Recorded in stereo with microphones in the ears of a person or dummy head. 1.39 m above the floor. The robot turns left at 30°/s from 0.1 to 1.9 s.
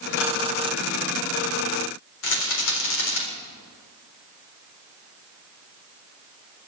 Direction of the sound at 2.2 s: 75° left (ahead or behind).